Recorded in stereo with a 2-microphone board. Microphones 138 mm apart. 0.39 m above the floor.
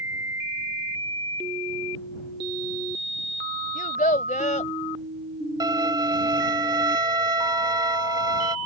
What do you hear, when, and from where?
3.8 s a child speaking: 65° left (ahead or behind)
5.6 s a violin: 30° right (ahead or behind)